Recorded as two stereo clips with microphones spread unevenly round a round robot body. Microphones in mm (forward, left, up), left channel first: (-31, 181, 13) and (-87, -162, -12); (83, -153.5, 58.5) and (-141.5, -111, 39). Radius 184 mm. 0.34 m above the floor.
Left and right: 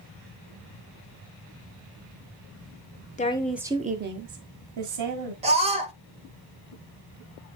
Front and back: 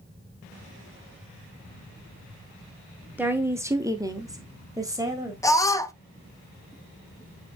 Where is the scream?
80° right, 0.8 m.